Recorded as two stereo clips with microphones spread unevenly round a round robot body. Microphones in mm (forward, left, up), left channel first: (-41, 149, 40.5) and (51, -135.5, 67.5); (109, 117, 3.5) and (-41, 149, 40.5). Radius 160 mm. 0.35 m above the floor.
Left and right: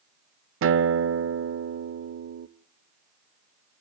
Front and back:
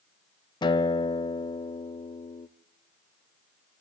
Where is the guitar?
35° right, 0.7 m.